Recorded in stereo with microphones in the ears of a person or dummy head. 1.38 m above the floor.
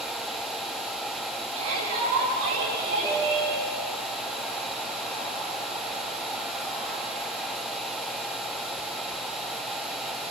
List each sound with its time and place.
1.5 s a shout: 80° right, 8 m; by 3.5 s 75° right (ahead or behind), 9 m
3.0 s a piano: 5° right (ahead or behind), 2 m